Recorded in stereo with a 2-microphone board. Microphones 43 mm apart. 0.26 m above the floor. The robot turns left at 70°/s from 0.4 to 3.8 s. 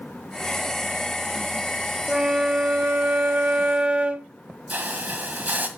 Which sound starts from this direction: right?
A hiss, at 4.7 s.